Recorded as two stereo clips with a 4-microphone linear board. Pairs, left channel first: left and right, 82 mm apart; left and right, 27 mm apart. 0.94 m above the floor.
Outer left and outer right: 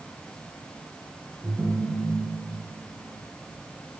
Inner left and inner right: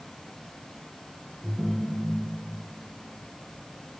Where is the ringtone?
20° right (ahead or behind), 4.5 m.